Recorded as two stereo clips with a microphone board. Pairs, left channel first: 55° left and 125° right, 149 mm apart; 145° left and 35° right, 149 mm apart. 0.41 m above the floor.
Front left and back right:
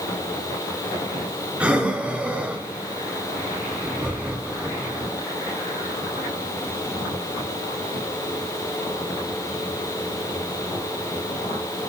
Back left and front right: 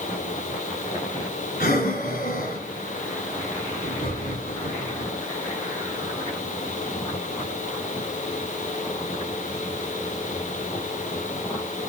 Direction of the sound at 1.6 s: 155° left.